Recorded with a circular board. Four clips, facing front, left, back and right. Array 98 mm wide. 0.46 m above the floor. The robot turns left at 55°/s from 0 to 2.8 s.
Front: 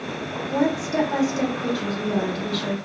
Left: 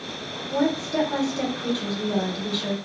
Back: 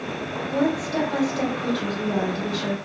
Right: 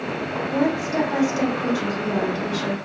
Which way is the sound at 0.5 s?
5° right.